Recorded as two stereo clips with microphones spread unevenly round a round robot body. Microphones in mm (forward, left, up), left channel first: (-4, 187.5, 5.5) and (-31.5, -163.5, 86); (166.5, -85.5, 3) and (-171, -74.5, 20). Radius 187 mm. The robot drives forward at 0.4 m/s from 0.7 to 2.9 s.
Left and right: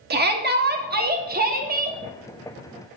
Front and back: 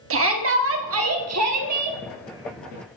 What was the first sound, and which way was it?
A shout, 160° right.